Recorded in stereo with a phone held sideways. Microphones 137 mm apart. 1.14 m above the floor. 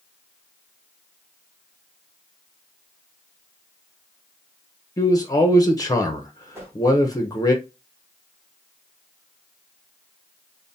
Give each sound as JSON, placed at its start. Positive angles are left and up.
{"t": 5.0, "sound": "a man speaking", "side_deg": 25, "distance_m": 0.6}
{"t": 6.5, "sound": "a whoosh", "side_deg": -15, "distance_m": 1.1}